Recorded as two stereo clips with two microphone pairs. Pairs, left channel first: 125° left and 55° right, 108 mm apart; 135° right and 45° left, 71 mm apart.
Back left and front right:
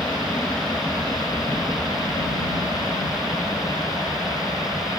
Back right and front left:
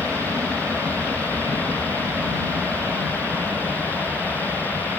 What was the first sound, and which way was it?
An aircraft, 50° left.